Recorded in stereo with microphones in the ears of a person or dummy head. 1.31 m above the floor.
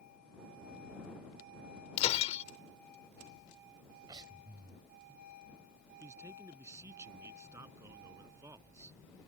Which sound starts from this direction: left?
Breaking glass, at 2.0 s.